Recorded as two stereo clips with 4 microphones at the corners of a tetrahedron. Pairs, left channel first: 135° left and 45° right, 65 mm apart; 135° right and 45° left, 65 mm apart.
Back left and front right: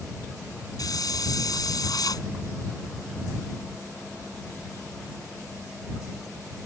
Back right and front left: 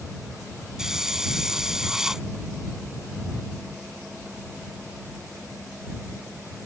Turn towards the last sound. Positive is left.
turn(degrees=125)